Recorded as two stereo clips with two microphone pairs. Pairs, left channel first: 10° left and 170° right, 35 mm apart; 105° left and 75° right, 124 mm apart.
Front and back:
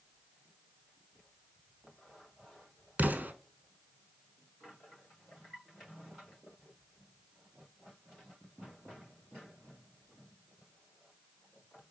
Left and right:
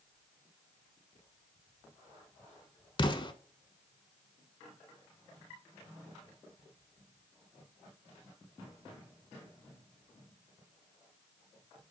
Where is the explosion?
160° left, 0.6 m.